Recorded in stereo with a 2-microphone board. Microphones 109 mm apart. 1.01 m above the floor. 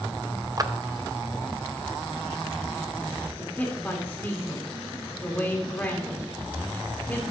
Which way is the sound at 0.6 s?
35° right (ahead or behind).